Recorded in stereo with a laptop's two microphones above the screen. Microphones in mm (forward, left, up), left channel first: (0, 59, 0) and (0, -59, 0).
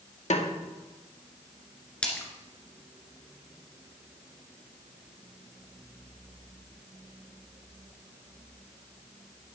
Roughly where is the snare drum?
Left.